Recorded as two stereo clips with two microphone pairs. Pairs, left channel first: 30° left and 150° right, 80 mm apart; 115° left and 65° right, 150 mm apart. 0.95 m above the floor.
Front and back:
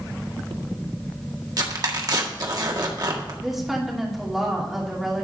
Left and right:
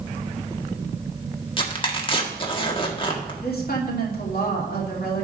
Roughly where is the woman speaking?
Behind left.